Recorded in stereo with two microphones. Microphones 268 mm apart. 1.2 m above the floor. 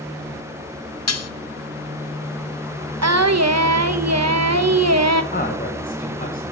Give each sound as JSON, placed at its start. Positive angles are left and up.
{"t": 1.1, "sound": "dishes clattering", "side_deg": 75, "distance_m": 0.6}
{"t": 3.0, "sound": "singing", "side_deg": -80, "distance_m": 0.8}
{"t": 5.3, "sound": "a man speaking", "side_deg": 35, "distance_m": 1.5}